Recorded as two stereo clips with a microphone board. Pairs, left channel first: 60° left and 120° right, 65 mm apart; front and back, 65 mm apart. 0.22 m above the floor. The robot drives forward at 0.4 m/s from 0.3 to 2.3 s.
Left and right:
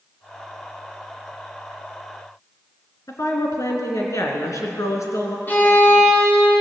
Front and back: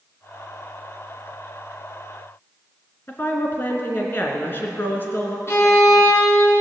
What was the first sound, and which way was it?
A woman speaking, 50° left.